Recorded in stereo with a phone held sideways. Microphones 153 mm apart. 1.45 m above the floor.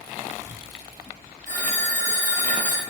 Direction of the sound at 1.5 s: 60° right (ahead or behind).